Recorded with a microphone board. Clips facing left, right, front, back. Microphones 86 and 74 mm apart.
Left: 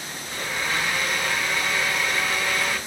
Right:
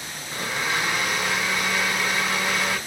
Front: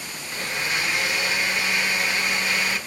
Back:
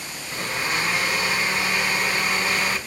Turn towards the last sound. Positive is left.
turn(degrees=-160)